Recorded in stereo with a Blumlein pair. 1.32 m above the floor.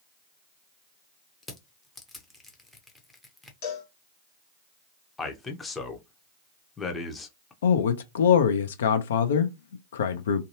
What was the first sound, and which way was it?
Crushing, 5° left.